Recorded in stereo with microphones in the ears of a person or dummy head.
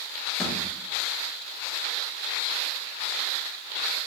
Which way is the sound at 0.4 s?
5° left (ahead or behind).